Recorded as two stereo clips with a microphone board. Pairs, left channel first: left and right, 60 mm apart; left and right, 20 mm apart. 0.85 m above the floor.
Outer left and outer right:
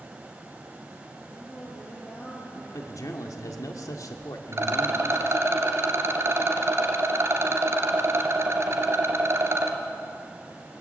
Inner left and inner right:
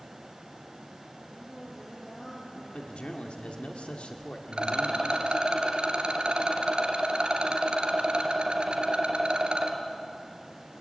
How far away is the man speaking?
About 1.9 m.